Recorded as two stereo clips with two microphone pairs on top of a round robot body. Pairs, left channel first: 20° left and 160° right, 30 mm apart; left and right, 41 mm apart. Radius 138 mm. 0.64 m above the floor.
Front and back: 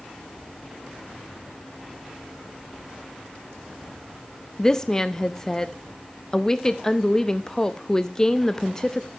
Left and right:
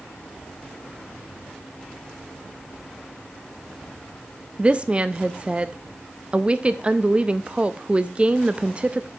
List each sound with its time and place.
4.6 s a woman speaking: 40° right, 0.6 m